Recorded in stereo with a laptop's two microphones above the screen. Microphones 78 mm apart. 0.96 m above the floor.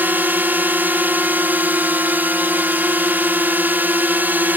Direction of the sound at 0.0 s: 25° right (ahead or behind).